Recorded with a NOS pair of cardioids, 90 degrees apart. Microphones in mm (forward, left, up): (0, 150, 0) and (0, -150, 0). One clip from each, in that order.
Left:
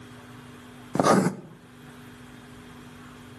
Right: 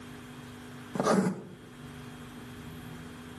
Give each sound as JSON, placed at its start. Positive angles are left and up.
{"t": 0.9, "sound": "writing", "azimuth_deg": 45, "distance_m": 0.9}